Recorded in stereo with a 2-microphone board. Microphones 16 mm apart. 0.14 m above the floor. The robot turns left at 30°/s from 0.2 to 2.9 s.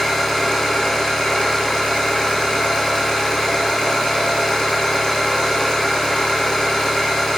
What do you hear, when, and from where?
0.0 s an engine running: 150° left, 4 m; by 7.4 s 70° left, 4 m